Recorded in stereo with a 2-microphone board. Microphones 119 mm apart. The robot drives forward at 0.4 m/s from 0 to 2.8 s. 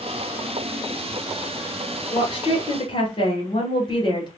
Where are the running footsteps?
No running footsteps in this recording.